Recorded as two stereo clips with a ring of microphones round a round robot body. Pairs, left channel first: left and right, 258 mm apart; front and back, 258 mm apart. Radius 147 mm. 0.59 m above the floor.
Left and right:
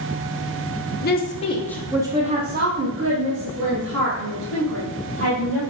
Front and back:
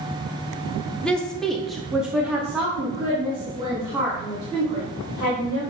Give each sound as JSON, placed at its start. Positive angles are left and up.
{"t": 1.0, "sound": "a woman speaking", "azimuth_deg": 85, "distance_m": 0.9}